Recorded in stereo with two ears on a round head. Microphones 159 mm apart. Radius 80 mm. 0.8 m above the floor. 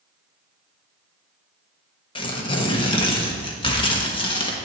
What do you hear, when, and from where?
2.1 s tearing paper: 30° left (ahead or behind), 1.2 m